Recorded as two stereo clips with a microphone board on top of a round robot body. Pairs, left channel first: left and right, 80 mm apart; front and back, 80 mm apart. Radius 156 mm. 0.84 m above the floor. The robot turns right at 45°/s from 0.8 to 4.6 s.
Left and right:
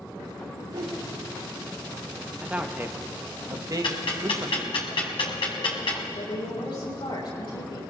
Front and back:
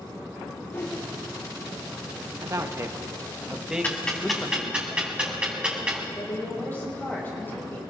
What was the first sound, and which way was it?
A whoosh, 60° right.